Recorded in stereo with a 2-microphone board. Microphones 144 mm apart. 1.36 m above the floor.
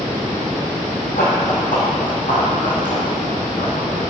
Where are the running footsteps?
60° left (ahead or behind), 2.5 m; by 4.1 s 65° left (ahead or behind), 4.5 m.